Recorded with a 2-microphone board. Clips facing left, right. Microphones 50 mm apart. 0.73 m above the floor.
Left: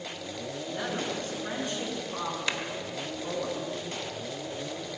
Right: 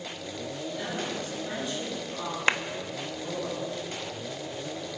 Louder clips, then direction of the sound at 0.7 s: Left 1 dB; 45° left (ahead or behind).